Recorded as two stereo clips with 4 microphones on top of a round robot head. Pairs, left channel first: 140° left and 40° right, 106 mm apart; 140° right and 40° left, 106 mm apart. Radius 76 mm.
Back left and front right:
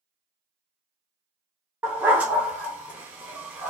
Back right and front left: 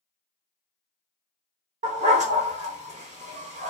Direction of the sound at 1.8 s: 35° left.